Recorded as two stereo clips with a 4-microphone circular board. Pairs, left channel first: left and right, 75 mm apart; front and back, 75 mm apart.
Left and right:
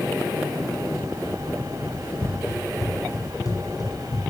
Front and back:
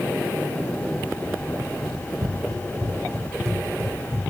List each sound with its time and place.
1.9 s running footsteps: 160° left, 1.4 m; by 4.2 s 120° left, 2.5 m